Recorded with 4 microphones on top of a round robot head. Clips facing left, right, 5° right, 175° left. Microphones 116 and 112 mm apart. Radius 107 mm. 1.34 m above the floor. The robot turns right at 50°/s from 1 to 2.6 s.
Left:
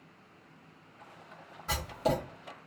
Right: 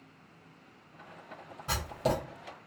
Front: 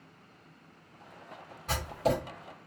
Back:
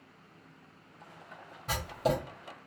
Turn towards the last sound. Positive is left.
turn(degrees=-105)